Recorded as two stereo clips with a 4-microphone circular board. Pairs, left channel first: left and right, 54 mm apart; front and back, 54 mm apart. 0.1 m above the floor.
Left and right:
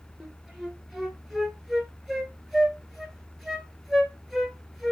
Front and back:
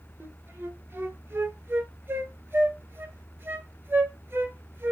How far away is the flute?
About 0.8 m.